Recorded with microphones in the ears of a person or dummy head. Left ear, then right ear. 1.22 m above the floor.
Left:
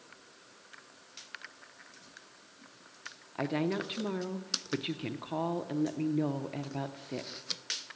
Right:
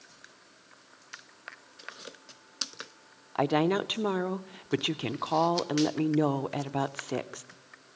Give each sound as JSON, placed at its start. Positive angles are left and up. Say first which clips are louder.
{"t": 3.4, "sound": "a woman speaking", "louder": "right 7 dB", "side_deg": -40, "distance_m": 0.5}